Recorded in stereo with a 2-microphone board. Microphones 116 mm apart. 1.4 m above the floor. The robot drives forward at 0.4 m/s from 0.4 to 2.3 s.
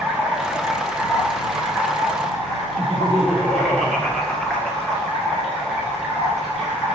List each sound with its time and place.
0.0 s running water: centre (ahead or behind), 1.4 m
2.8 s laughter: 10° left (ahead or behind), 1.3 m